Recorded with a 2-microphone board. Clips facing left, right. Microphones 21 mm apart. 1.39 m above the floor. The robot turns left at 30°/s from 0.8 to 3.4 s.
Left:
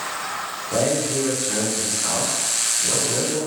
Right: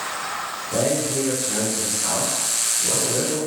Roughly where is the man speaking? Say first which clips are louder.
Left 1 dB; ahead left.